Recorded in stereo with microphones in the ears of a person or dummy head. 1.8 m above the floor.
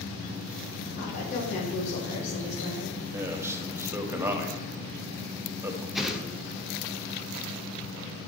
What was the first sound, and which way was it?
A woman speaking, 55° left (ahead or behind).